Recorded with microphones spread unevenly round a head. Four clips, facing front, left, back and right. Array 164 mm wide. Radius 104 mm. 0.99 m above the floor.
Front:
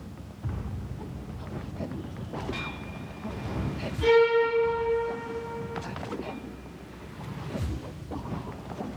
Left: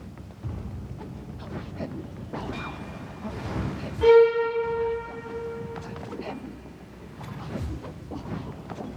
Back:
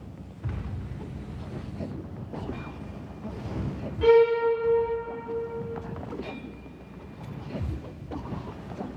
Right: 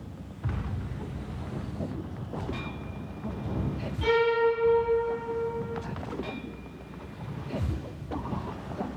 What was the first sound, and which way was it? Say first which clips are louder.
A violin: left 8 dB, back 2 dB; 120° left.